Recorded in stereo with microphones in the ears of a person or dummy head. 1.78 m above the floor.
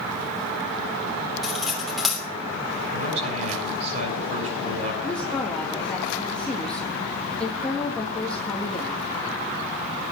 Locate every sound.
1.4 s cutlery clinking: 5° right (ahead or behind), 3 m
2.9 s a man speaking: 35° right (ahead or behind), 7.5 m
5.0 s a woman speaking: 10° left (ahead or behind), 2 m